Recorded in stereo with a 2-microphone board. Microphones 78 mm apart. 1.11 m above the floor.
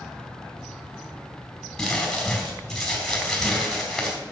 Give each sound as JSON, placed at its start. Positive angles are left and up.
{"t": 1.8, "sound": "crumpling", "side_deg": 5, "distance_m": 4.0}